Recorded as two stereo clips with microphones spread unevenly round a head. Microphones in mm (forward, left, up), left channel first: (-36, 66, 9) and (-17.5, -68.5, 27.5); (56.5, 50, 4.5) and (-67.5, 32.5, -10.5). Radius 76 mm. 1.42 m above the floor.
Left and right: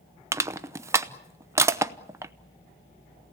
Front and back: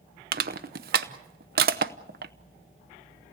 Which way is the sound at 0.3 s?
155° right.